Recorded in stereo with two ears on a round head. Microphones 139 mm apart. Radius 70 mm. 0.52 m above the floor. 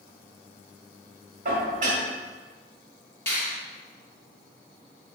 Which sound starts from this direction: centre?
A finger snap, at 3.3 s.